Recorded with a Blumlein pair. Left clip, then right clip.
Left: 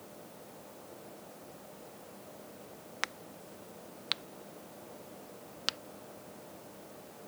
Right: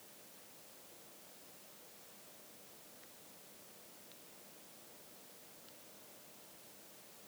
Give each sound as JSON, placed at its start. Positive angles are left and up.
{"t": 0.0, "sound": "a fan", "azimuth_deg": 60}
{"t": 3.0, "sound": "a crack", "azimuth_deg": 45}